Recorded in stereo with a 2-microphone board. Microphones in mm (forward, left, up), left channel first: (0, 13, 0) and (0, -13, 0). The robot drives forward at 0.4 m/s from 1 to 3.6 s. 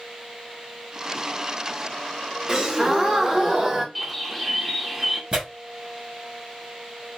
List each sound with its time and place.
2.5 s a gasp: 20° right (ahead or behind), 1.1 m; by 3.9 s 15° right (ahead or behind), 1.4 m
4.0 s a bird: centre (ahead or behind), 0.9 m
5.3 s tearing paper: 35° right (ahead or behind), 3.5 m